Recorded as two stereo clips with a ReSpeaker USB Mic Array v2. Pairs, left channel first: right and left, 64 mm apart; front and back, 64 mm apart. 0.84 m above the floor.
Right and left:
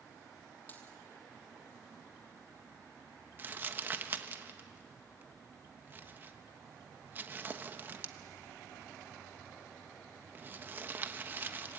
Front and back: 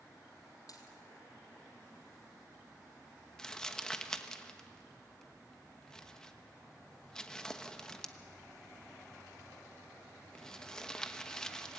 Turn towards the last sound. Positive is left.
turn(degrees=70)